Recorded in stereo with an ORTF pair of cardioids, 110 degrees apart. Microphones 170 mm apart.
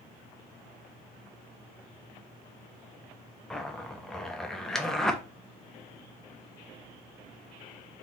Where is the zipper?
5° left, 0.5 m.